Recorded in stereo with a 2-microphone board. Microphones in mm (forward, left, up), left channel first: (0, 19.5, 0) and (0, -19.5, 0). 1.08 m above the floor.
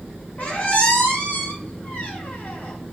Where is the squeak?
50° left (ahead or behind), 1.3 m.